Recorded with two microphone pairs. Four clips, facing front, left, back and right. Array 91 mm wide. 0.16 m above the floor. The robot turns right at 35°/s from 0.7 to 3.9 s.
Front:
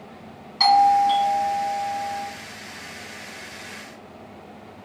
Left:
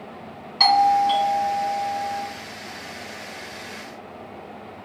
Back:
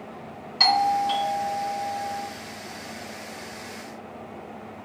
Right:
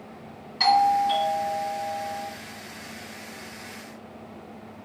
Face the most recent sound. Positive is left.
turn(degrees=175)